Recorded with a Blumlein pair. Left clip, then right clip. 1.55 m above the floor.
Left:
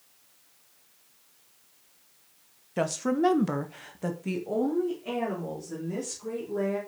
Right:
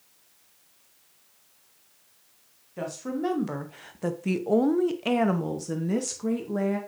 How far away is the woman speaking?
About 1.2 m.